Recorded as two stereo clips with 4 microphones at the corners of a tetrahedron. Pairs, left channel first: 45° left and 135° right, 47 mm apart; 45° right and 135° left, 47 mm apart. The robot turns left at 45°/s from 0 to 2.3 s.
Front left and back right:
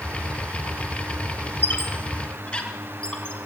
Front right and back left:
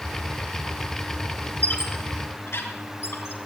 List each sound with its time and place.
1.6 s a squeak: 10° left, 3 m; by 3.4 s 20° right, 3 m